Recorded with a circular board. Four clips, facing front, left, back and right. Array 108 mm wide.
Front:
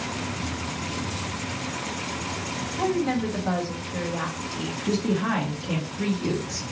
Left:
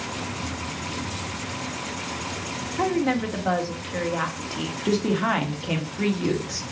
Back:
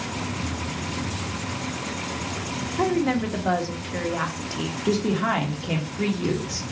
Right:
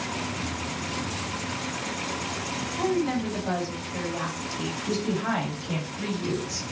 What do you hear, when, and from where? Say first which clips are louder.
2.8 s a woman speaking: left 3 dB, back 2 dB; 135° left, 1.0 m
4.8 s a woman speaking: left 6 dB, back 2 dB; 125° left, 1.3 m